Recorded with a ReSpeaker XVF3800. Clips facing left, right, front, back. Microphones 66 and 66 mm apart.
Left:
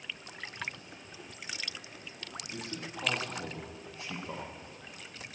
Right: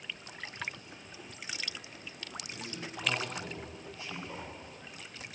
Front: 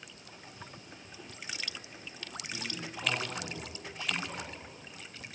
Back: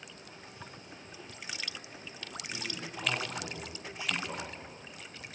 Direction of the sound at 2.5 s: 85° left.